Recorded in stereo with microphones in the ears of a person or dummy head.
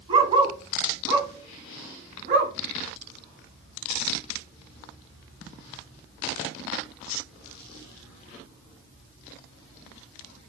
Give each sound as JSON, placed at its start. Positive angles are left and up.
{"t": 0.1, "sound": "a dog barking", "side_deg": -30, "distance_m": 3.0}